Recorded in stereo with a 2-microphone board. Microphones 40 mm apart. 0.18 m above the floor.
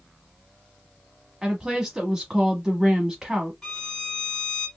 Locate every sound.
1.4 s a woman speaking: 15° right (ahead or behind), 1.0 m
3.6 s a violin: 5° left (ahead or behind), 1.3 m